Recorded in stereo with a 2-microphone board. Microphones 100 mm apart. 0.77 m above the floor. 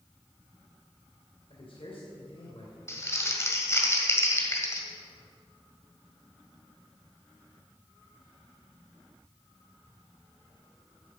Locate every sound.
1.5 s a man speaking: 65° left (ahead or behind), 2.5 m
2.9 s crumpling: 30° left (ahead or behind), 1.7 m